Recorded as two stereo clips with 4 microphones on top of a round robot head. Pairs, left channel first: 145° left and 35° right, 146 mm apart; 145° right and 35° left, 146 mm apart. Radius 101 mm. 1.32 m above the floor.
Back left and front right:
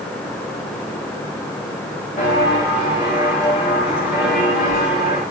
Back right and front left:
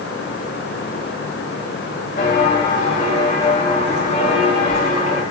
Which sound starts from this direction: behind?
Footsteps, at 2.2 s.